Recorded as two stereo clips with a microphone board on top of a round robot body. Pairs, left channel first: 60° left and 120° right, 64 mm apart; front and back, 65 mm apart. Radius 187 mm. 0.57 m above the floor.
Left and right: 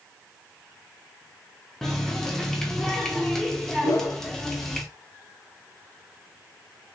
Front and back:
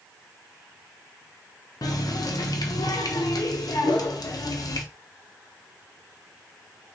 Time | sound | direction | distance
1.8 | a running tap | 25° right | 0.8 m
3.8 | a whoosh | 15° left | 1.0 m